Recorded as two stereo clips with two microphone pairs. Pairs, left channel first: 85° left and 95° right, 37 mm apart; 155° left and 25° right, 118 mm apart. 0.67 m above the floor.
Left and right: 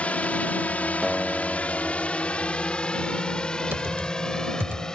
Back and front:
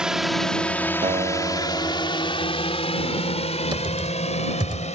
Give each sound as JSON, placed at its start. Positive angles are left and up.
{"t": 0.0, "sound": "a drone", "azimuth_deg": 55}
{"t": 1.0, "sound": "a guitar", "azimuth_deg": -15}
{"t": 3.7, "sound": "typing on a keyboard", "azimuth_deg": -75}